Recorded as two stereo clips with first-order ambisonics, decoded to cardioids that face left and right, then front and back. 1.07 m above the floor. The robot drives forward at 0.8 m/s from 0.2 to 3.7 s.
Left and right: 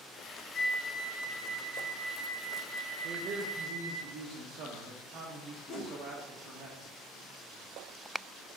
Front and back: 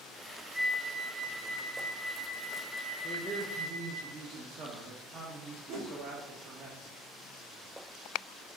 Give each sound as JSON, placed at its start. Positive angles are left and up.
{"t": 0.5, "sound": "a flute", "azimuth_deg": 70, "distance_m": 0.9}
{"t": 3.0, "sound": "a man speaking", "azimuth_deg": -95, "distance_m": 0.6}
{"t": 5.7, "sound": "a whoosh", "azimuth_deg": 170, "distance_m": 1.4}